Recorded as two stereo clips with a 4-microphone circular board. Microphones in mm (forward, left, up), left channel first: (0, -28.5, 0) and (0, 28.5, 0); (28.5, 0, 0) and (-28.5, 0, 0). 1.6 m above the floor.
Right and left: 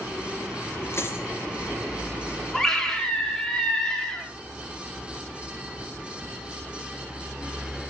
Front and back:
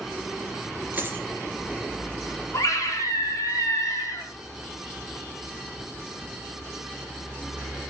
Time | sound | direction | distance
0.9 | a dropped coin | 125° right | 3.5 m
2.5 | a scream | 10° right | 3.5 m